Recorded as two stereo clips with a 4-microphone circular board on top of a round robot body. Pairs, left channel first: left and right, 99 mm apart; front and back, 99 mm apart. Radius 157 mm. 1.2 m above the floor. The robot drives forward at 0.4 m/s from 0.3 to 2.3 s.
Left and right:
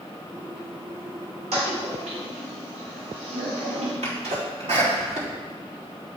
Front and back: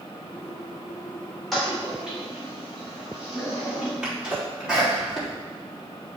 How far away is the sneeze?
About 3.5 m.